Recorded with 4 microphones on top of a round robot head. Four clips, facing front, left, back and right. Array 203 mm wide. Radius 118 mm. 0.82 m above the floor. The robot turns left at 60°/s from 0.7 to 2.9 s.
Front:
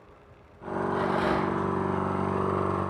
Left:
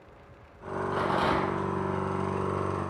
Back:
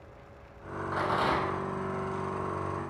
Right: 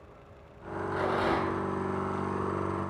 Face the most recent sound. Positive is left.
turn(degrees=35)